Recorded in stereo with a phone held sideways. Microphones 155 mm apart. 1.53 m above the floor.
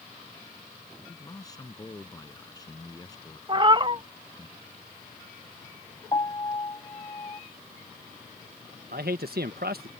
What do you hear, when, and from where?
1.1 s a man speaking: 25° left (ahead or behind)
3.5 s a cat meowing: 30° right (ahead or behind)
6.1 s a piano: 30° left (ahead or behind)
8.9 s a man speaking: 85° right